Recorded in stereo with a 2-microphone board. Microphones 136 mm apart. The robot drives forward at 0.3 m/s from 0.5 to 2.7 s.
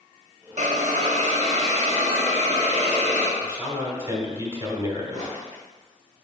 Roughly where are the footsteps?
Right.